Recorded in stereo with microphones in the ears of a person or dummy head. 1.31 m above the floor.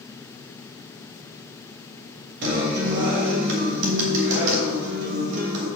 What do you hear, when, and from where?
2.4 s a guitar: 70° right (ahead or behind), 2.5 m